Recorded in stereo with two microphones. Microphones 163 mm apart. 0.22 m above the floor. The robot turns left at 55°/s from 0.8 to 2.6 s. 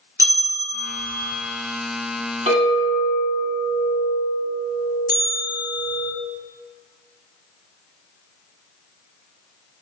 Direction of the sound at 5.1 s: 70° right (ahead or behind).